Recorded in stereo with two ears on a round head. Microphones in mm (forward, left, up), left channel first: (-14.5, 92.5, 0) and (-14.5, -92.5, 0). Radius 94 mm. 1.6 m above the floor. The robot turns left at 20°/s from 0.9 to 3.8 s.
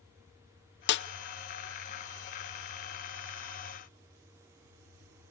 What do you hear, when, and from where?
0.9 s a snare drum: 60° left (ahead or behind), 0.7 m; by 1.1 s 65° left (ahead or behind), 0.7 m